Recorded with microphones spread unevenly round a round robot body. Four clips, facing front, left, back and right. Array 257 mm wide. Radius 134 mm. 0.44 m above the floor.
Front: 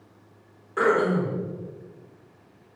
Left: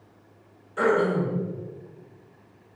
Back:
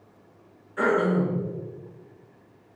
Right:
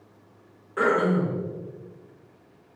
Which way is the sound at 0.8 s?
30° right.